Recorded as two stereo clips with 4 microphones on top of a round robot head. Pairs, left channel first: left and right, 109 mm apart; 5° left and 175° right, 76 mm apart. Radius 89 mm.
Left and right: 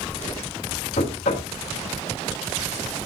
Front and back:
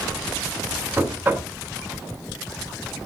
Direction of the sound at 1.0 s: 120° left.